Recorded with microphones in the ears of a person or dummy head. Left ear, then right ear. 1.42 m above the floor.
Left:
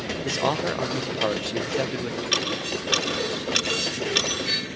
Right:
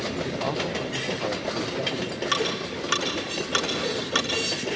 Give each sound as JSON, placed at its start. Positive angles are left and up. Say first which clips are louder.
{"t": 0.2, "sound": "a man speaking", "louder": "left 4 dB", "side_deg": 55, "distance_m": 1.0}
{"t": 2.3, "sound": "ticking", "louder": "left 2 dB", "side_deg": -40, "distance_m": 6.5}